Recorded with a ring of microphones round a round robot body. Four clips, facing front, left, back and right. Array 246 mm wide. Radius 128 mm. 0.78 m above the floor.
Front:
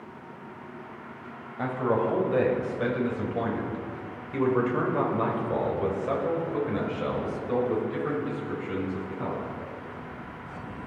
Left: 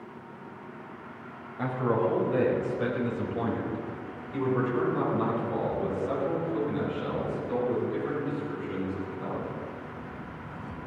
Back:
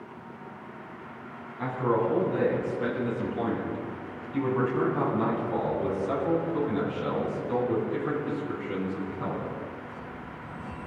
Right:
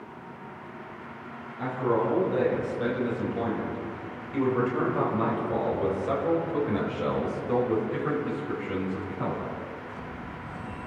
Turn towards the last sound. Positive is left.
turn(degrees=-65)